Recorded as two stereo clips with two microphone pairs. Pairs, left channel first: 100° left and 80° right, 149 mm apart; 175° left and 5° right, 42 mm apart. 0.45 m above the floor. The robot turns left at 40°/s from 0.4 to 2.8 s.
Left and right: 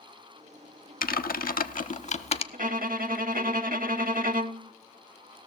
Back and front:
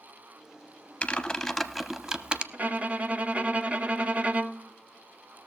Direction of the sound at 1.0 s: 110° left.